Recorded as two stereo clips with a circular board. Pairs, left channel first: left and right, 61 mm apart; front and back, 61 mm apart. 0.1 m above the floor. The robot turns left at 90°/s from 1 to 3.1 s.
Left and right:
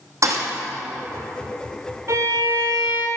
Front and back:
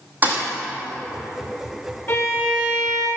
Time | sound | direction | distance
0.2 | a thud | 120° right | 2.5 m
2.1 | a violin | 45° right | 3 m